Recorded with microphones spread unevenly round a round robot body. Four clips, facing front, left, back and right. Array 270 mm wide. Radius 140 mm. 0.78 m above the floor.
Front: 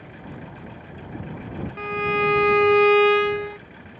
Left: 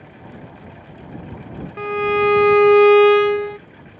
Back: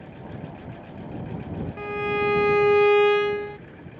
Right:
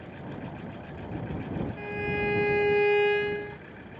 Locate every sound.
1.8 s a violin: 75° left